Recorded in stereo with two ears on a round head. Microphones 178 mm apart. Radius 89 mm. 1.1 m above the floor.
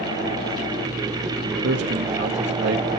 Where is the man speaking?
60° right (ahead or behind), 1.2 m.